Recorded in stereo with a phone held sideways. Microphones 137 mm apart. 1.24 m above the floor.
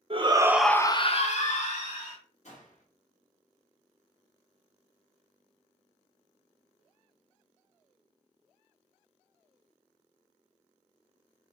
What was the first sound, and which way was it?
A shout, 45° right (ahead or behind).